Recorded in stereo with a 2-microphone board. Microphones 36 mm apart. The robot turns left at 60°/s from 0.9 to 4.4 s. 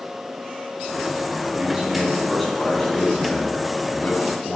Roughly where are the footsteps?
I don't hear footsteps.